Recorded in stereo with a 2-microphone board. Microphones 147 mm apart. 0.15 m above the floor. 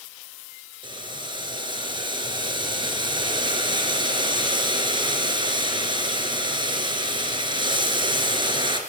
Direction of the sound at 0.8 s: 35° right (ahead or behind).